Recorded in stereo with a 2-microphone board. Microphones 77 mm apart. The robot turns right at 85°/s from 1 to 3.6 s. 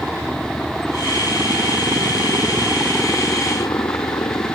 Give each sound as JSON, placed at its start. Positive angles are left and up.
{"t": 0.0, "sound": "a helicopter", "side_deg": 0}